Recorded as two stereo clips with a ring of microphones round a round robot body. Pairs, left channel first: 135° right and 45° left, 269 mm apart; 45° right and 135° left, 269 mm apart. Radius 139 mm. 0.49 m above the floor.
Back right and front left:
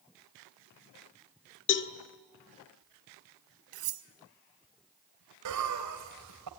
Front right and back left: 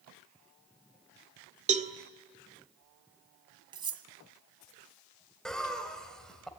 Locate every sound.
1.7 s a cowbell: 165° right, 1.8 m
3.7 s cutlery clinking: 60° left, 2 m
5.5 s laughter: 45° left, 2.5 m